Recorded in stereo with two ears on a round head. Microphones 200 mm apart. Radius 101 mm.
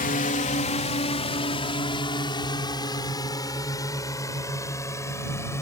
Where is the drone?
40° left (ahead or behind); by 5.6 s 15° left (ahead or behind).